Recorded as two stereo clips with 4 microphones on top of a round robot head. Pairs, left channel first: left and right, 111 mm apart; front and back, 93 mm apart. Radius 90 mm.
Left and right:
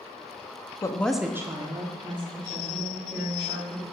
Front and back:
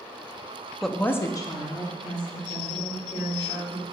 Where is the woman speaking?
95° left, 0.7 m; by 3.8 s 50° right, 3.5 m.